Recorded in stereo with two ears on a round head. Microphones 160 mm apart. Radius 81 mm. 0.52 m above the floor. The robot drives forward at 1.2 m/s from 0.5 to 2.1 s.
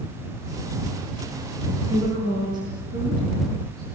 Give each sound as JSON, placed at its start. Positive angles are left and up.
{"t": 1.9, "sound": "a woman speaking", "side_deg": -25, "distance_m": 7.5}